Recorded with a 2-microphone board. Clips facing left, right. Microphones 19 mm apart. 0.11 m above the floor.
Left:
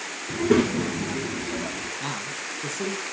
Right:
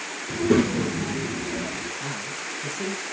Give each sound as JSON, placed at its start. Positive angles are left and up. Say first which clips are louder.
{"t": 0.3, "sound": "a child speaking", "louder": "even", "side_deg": 5, "distance_m": 0.8}
{"t": 2.0, "sound": "a man speaking", "louder": "even", "side_deg": 35, "distance_m": 2.5}